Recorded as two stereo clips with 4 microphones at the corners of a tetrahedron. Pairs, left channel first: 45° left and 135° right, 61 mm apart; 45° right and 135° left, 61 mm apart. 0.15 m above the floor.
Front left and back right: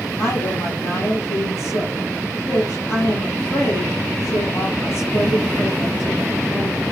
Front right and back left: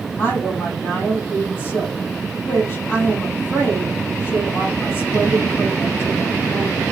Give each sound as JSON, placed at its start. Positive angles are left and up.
{"t": 0.2, "sound": "a woman speaking", "azimuth_deg": 15, "distance_m": 5.0}